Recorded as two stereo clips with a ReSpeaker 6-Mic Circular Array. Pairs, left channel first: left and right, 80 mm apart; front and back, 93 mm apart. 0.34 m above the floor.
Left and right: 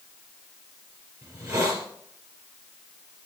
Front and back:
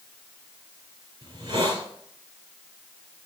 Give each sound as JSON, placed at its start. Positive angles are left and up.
{"t": 1.2, "sound": "a hiss", "azimuth_deg": -140, "distance_m": 3.0}